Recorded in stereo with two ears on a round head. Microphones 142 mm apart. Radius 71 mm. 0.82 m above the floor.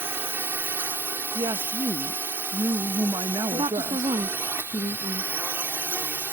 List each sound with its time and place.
0.0 s a drone: 15° right (ahead or behind)
1.4 s a woman speaking: 25° right (ahead or behind)
3.5 s a woman speaking: 30° right (ahead or behind)